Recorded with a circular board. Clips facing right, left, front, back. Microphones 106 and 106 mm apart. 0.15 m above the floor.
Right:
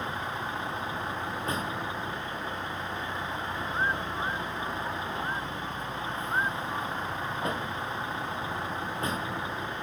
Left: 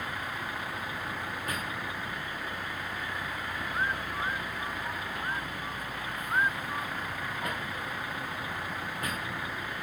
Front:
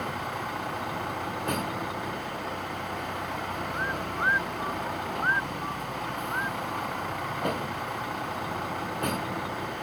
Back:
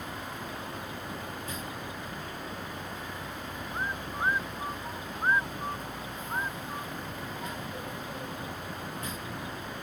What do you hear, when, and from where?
0.0 s a vehicle: 25° right